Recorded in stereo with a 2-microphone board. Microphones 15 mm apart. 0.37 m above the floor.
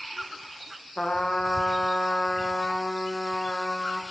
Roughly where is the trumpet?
Left.